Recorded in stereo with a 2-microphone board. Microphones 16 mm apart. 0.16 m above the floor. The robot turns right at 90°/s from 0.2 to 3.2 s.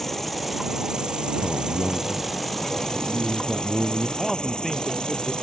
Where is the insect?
165° left; by 5.4 s 75° left.